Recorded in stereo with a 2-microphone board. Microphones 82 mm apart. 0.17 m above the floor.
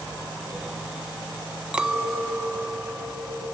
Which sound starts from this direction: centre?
A clink, at 1.7 s.